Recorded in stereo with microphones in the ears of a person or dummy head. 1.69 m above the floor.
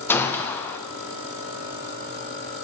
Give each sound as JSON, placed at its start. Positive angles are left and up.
{"t": 0.1, "sound": "a gunshot", "side_deg": 10, "distance_m": 0.6}